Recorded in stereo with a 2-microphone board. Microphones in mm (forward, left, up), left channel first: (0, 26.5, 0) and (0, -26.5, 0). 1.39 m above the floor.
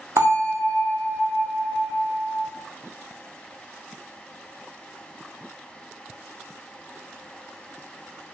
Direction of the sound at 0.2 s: 65° right (ahead or behind).